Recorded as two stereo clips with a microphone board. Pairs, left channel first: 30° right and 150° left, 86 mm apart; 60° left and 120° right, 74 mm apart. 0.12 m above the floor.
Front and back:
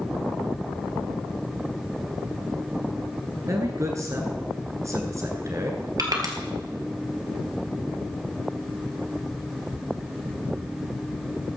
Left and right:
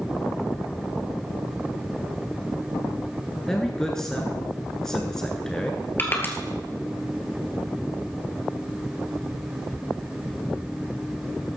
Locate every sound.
3.5 s a man speaking: 140° left, 1.3 m
6.0 s crushing: 115° left, 2 m